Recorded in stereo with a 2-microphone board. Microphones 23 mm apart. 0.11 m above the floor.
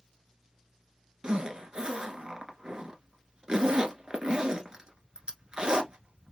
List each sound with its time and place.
1.2 s a zipper: 40° right (ahead or behind), 0.9 m